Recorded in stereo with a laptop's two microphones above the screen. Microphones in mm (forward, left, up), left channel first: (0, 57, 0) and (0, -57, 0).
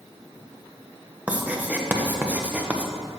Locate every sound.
1.3 s writing: 15° right (ahead or behind), 0.7 m